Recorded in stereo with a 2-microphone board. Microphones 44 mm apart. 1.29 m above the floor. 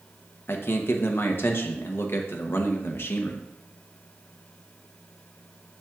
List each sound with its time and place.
0.5 s a man speaking: 55° left (ahead or behind), 0.9 m